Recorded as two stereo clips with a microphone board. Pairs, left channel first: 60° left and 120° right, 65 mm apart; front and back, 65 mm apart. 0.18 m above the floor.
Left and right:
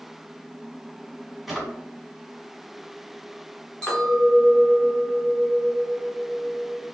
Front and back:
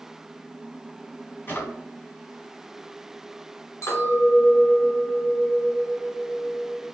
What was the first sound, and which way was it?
A drawer, 35° right.